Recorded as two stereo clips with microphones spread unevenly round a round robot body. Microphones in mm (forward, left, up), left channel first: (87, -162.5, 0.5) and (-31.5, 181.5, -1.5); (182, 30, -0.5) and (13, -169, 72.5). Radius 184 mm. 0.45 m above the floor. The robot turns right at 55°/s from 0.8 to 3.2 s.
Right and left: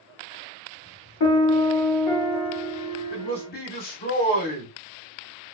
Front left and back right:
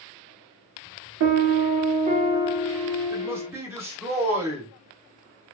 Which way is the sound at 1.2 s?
105° right.